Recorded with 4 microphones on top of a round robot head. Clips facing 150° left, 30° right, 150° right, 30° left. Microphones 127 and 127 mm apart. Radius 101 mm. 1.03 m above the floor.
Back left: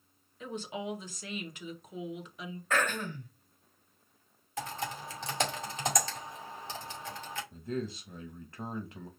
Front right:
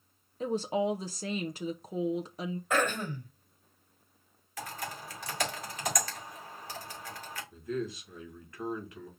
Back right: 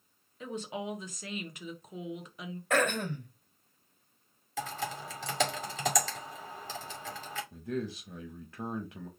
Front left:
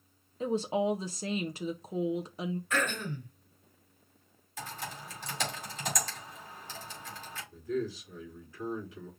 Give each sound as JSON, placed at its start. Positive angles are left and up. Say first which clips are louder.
{"t": 0.4, "sound": "a woman speaking", "louder": "front right 9 dB, front left 8 dB", "azimuth_deg": -5, "distance_m": 0.7}
{"t": 2.7, "sound": "throat clearing", "louder": "front right 1 dB, back right 9 dB", "azimuth_deg": -110, "distance_m": 2.5}
{"t": 4.6, "sound": "typing on a keyboard", "louder": "back left 3 dB, back right 5 dB", "azimuth_deg": -145, "distance_m": 2.0}
{"t": 7.5, "sound": "a man speaking", "louder": "front right 2 dB, front left 4 dB", "azimuth_deg": -155, "distance_m": 1.8}